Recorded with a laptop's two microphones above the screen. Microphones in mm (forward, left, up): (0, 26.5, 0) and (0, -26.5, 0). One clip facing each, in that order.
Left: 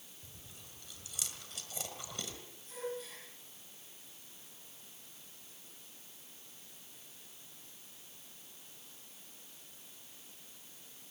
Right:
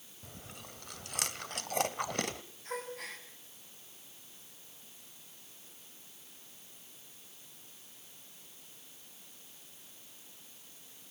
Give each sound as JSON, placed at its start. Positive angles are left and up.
{"t": 0.2, "sound": "chewing", "side_deg": -60, "distance_m": 1.3}
{"t": 2.6, "sound": "a gasp", "side_deg": -65, "distance_m": 7.0}